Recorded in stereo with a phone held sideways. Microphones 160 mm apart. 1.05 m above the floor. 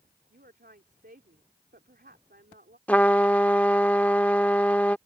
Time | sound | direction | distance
0.3 | a woman speaking | 80° right | ?
2.9 | a trumpet | 10° left (ahead or behind) | ?